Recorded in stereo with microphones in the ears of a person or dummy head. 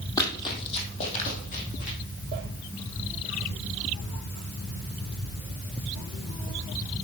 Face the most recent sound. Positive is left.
turn(degrees=50)  # may be behind; listen again after turning